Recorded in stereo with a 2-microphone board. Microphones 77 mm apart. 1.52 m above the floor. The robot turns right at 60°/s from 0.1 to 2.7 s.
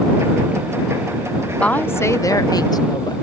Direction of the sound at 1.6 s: 20° left.